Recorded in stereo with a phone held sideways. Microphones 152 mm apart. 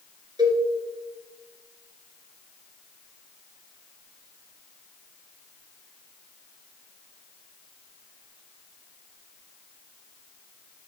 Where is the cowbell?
30° right (ahead or behind), 3 m.